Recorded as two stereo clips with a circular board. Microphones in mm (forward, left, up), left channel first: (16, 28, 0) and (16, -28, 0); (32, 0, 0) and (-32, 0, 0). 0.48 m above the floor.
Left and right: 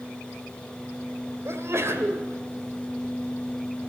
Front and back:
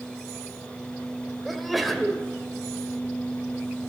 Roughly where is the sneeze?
Right.